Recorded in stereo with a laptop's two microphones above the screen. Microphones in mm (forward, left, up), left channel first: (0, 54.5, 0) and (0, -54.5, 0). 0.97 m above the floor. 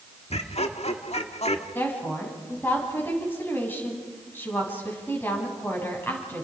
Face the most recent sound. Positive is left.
turn(degrees=20)  # may be behind; listen again after turning